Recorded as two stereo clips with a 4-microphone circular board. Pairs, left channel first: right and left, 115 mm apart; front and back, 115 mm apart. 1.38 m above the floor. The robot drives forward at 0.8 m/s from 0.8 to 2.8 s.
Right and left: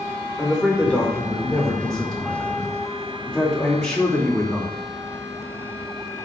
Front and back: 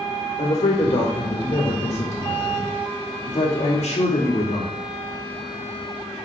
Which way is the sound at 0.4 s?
5° right.